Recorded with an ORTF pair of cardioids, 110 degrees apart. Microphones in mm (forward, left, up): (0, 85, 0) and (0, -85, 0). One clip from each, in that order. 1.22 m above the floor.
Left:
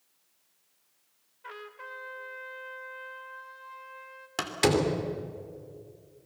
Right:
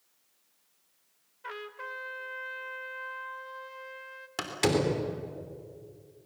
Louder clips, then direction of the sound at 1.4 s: Right 3 dB; 20° right.